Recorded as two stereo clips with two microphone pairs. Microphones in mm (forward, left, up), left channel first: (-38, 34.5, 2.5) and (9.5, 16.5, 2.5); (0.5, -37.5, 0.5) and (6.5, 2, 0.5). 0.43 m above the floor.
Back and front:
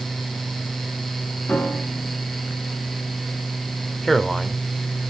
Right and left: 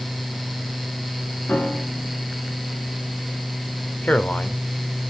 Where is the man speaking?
115° right, 1.3 m.